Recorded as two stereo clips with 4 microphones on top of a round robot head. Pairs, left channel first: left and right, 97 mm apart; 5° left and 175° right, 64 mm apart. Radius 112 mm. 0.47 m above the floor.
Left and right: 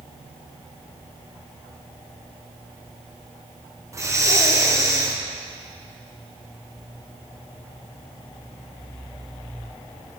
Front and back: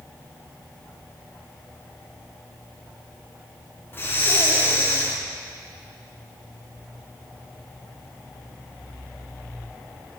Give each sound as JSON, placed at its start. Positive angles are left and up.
{"t": 3.9, "sound": "breathing", "azimuth_deg": -40, "distance_m": 1.3}